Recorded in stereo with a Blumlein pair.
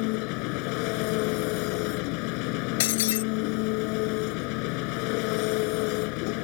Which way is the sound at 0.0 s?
45° left.